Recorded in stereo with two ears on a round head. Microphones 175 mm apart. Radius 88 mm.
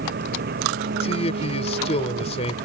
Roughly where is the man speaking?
Left.